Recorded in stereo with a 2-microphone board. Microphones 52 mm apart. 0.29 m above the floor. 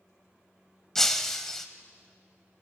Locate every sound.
0.9 s breaking glass: 10° left (ahead or behind), 0.6 m